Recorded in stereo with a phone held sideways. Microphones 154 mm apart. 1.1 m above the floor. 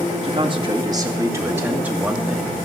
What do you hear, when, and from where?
0.2 s a man speaking: 40° right (ahead or behind), 1.9 m; by 2.6 s centre (ahead or behind), 2.5 m